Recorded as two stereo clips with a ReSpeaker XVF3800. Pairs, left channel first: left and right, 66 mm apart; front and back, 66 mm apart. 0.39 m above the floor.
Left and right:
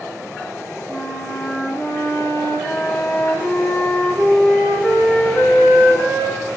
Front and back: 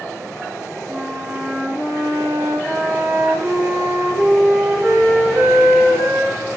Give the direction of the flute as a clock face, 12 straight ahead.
7 o'clock.